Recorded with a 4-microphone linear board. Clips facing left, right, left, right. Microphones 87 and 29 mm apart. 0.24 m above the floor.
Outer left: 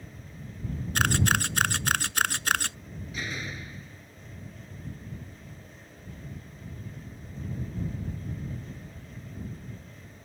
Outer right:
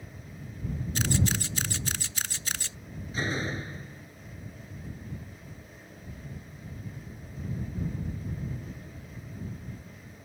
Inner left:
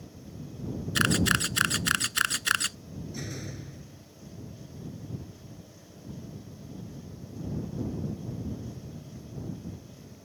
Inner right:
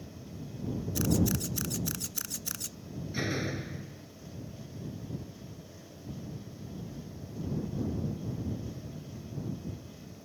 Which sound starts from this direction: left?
A camera shutter, at 0.9 s.